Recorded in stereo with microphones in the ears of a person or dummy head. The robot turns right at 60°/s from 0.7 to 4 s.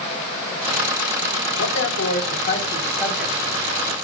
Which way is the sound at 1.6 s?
80° left.